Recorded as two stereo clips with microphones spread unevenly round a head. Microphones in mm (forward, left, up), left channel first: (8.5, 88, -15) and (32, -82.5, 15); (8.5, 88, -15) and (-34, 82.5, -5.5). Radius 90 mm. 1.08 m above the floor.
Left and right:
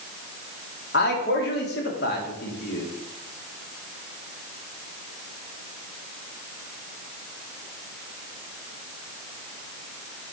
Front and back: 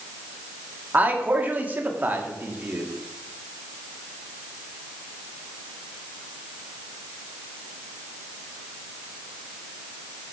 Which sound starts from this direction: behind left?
A man speaking, at 0.9 s.